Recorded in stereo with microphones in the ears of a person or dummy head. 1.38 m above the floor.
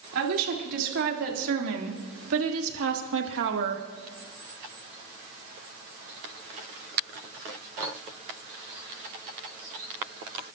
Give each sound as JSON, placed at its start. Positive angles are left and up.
{"t": 0.1, "sound": "a woman speaking", "side_deg": -75, "distance_m": 3.5}